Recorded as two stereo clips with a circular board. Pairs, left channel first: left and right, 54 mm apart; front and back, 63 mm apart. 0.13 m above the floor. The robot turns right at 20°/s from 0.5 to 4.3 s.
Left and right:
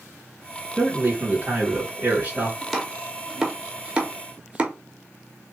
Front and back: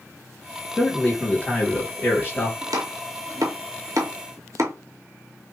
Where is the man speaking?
80° right, 2.5 m; by 2.5 s 45° right, 2.5 m.